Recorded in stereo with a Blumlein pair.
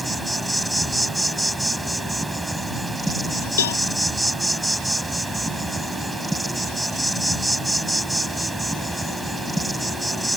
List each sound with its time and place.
0.0 s an insect: 5° right
3.6 s a cowbell: 65° left